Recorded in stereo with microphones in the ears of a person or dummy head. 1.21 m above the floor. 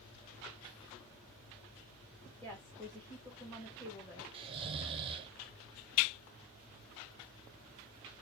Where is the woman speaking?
10° left (ahead or behind), 1.6 m.